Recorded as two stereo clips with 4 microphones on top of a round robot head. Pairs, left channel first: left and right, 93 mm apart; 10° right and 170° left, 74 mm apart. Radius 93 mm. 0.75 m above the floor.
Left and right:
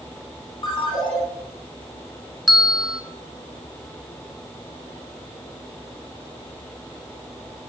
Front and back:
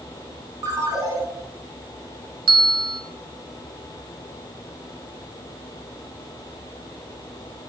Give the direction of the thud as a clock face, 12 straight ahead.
I don't hear a thud.